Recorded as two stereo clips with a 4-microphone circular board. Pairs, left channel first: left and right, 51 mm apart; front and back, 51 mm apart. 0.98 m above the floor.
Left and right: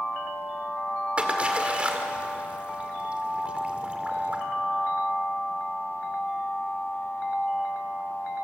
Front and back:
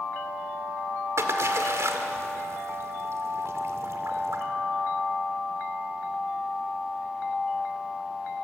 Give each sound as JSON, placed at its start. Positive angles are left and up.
{"t": 1.2, "sound": "a splash", "azimuth_deg": -155, "distance_m": 1.7}